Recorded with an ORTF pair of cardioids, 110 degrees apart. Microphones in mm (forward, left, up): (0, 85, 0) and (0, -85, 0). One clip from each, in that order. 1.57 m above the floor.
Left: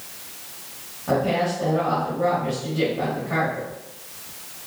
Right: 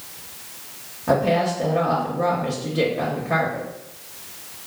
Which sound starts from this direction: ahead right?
A woman speaking, at 1.1 s.